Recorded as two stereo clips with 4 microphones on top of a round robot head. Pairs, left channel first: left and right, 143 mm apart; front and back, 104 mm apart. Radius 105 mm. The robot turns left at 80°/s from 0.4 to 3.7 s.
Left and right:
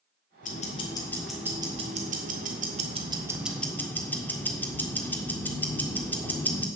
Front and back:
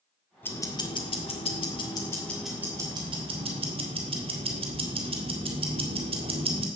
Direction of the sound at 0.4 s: 70° left.